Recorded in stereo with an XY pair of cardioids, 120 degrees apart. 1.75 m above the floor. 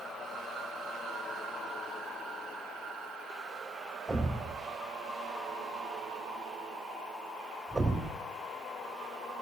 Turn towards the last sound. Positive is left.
turn(degrees=0)